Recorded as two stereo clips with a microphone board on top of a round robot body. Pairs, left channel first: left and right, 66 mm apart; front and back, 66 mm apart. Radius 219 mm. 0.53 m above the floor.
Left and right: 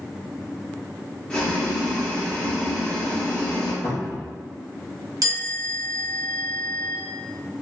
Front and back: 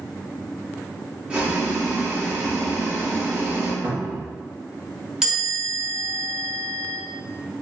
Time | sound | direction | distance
1.3 | boiling | 140° left | 1.3 m
3.8 | a cupboard door | 125° left | 0.9 m
5.2 | a chime | 100° right | 1.5 m